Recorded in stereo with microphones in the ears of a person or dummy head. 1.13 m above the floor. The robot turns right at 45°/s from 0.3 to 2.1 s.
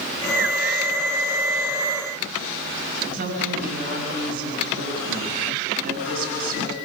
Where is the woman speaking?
50° right (ahead or behind), 7 m.